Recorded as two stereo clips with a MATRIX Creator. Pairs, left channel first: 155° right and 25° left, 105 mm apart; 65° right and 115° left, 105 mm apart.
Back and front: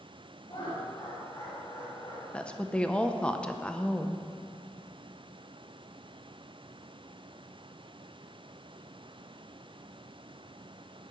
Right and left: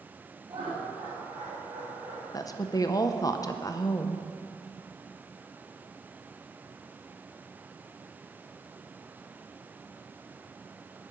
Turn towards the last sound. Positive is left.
turn(degrees=-85)